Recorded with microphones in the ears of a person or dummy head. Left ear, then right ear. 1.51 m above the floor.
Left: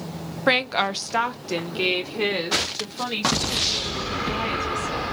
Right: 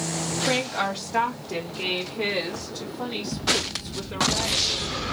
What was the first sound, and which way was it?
A woman speaking, 55° left (ahead or behind).